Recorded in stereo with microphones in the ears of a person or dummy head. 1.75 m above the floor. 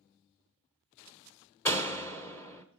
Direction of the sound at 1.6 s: 15° left (ahead or behind).